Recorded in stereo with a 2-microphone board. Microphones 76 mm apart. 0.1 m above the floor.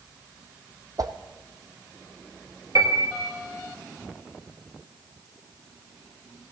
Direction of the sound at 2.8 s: 50° right (ahead or behind).